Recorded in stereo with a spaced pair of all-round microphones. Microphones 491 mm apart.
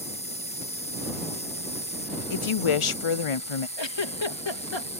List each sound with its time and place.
0.0 s an insect: 15° left (ahead or behind)
2.3 s a woman speaking: 80° left
3.8 s a giggle: 60° left (ahead or behind)